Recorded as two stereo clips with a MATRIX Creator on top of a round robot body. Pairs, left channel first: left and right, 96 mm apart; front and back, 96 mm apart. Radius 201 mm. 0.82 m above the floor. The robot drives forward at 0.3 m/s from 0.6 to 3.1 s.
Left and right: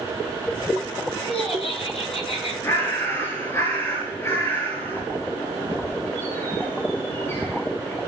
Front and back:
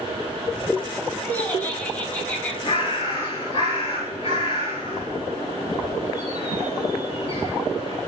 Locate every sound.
1.2 s laughter: 70° left, 7.5 m
2.6 s a bird: 25° left, 6 m